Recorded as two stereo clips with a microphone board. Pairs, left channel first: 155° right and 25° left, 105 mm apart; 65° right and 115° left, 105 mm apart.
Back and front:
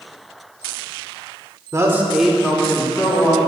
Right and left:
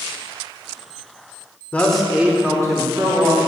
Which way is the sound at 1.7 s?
5° right.